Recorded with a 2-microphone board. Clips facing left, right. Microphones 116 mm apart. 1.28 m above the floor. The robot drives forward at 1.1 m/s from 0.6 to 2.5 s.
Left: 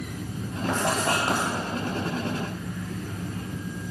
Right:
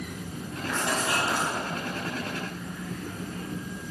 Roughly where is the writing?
Left.